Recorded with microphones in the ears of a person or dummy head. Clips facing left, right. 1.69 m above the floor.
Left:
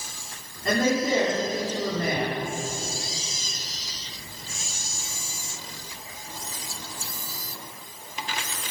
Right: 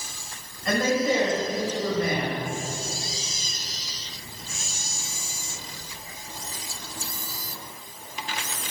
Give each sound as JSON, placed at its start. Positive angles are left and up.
{"t": 0.7, "sound": "a man speaking", "side_deg": 45, "distance_m": 4.5}